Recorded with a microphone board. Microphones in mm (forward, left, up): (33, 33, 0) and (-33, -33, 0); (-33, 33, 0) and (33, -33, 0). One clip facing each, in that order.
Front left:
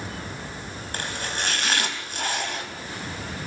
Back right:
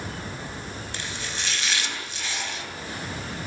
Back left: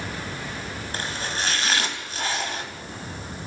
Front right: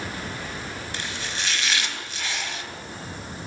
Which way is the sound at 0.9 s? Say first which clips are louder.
Front left 7 dB, back left 6 dB; 85° left.